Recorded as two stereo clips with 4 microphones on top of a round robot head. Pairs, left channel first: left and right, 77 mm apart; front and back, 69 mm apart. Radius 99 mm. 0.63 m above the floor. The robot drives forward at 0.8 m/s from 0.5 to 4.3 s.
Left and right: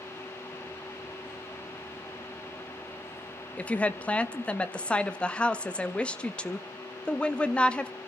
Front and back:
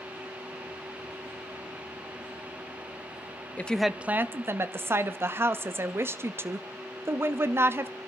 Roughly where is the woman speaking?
Ahead left.